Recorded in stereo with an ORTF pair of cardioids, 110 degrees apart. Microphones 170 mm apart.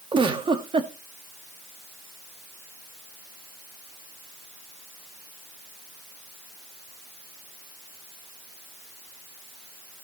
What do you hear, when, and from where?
0.1 s a giggle: 30° right, 1.9 m